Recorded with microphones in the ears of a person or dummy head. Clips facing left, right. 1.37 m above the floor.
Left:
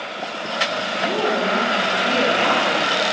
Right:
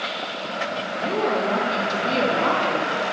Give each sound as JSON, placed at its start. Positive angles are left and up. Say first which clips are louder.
{"t": 0.9, "sound": "a woman speaking", "louder": "left 1 dB", "side_deg": 10, "distance_m": 1.1}